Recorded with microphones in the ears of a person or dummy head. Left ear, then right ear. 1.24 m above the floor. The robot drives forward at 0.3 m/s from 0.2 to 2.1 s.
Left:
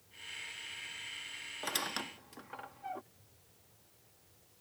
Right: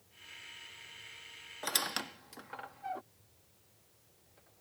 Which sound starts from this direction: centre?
A squeak, at 1.6 s.